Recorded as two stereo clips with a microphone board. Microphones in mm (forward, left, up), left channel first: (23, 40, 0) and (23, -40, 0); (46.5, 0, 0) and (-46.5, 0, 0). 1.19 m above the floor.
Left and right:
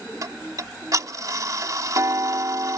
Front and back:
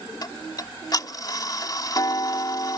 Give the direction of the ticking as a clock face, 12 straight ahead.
2 o'clock.